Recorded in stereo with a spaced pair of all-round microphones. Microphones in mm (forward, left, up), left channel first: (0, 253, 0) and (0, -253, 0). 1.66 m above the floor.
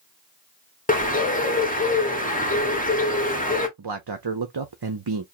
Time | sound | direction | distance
0.9 | a bird | 15° left (ahead or behind) | 1.3 m
3.8 | a man speaking | 50° right (ahead or behind) | 0.6 m